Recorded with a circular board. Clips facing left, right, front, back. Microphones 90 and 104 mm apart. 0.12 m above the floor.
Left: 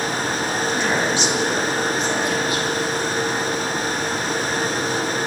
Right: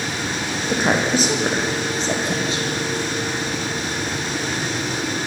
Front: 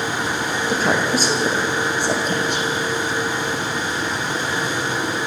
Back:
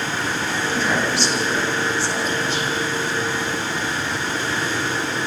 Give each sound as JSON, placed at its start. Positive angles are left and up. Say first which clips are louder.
{"t": 0.7, "sound": "a woman speaking", "louder": "right 5 dB, front 3 dB", "azimuth_deg": -45, "distance_m": 7.0}